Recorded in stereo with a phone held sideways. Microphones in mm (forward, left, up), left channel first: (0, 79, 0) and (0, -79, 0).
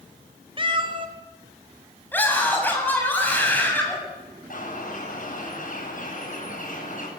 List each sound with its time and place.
0.6 s a cat meowing: 35° right (ahead or behind), 2.0 m
2.1 s a scream: 10° left (ahead or behind), 7.5 m
4.5 s a bird: 60° left (ahead or behind), 10 m